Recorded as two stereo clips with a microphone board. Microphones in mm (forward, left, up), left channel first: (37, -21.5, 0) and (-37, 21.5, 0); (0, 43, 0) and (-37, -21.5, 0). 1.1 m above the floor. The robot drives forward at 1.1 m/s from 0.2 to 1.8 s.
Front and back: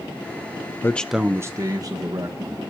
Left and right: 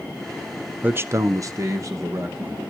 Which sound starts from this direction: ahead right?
A man speaking, at 0.8 s.